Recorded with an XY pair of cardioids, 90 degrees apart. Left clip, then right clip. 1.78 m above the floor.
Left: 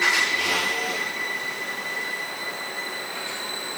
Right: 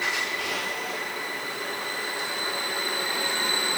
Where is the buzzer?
I don't hear a buzzer.